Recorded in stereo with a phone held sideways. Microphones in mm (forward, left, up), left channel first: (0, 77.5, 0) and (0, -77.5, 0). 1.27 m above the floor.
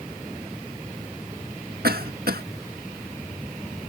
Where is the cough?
85° right.